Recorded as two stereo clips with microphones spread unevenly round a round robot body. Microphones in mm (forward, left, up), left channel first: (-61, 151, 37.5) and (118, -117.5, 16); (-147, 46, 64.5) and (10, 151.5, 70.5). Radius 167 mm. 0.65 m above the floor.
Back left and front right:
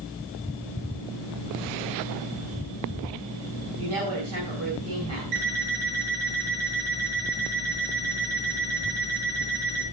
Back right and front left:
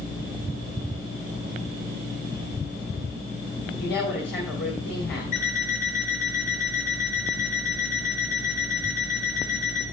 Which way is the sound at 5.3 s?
85° right.